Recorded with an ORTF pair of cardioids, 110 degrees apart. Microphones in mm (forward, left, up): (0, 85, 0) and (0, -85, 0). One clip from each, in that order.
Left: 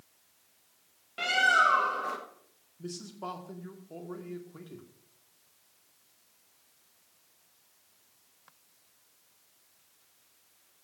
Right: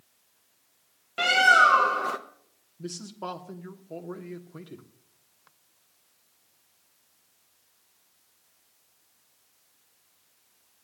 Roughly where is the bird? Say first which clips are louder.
Right 6 dB; ahead right.